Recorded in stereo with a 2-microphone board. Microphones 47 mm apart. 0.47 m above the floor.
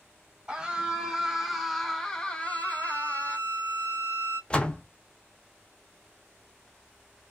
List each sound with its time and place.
0.5 s a scream: 20° right (ahead or behind), 1.1 m; by 3.4 s 30° left (ahead or behind), 1.2 m
2.4 s a violin: 15° right (ahead or behind), 1.7 m
4.5 s a door slam: 25° left (ahead or behind), 0.5 m